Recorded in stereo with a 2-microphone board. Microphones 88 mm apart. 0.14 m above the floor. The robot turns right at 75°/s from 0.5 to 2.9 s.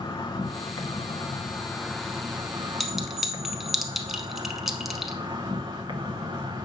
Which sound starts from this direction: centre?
A clink, at 2.8 s.